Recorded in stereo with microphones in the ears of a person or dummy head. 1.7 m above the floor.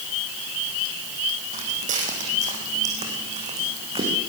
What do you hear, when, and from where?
1.5 s footsteps: 40° right (ahead or behind), 4 m; by 4.1 s 25° right (ahead or behind), 6.5 m